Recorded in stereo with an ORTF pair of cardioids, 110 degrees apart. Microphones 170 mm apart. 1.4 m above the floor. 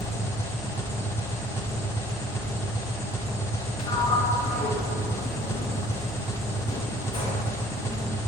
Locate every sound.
0.0 s an engine running: 15° left, 0.9 m
3.8 s a sliding door: 25° left, 1.4 m